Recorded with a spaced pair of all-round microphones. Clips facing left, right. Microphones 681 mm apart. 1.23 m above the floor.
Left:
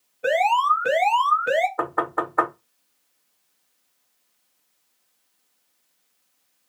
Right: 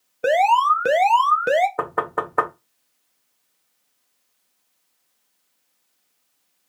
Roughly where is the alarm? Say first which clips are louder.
Right 3 dB; right.